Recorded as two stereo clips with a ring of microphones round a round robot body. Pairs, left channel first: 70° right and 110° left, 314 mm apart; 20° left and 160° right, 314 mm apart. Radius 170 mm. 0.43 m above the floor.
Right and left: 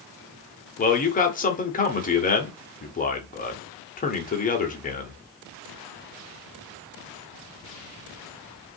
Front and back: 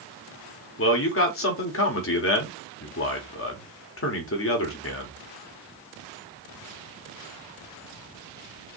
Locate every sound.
0.8 s a man speaking: 10° right, 1.4 m